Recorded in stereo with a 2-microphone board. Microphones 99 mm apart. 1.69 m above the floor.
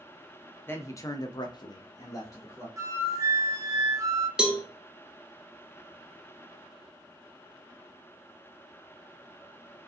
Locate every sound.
0.7 s a man speaking: 20° left (ahead or behind), 0.6 m; by 2.7 s 30° left (ahead or behind), 1.0 m
2.8 s a flute: 30° right (ahead or behind), 0.6 m
4.4 s a cowbell: 10° right (ahead or behind), 0.5 m